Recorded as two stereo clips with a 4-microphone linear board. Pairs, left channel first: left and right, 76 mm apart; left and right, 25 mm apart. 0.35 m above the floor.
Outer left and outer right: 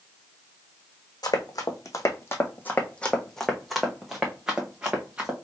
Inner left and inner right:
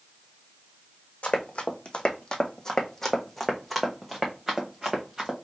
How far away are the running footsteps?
About 1.0 m.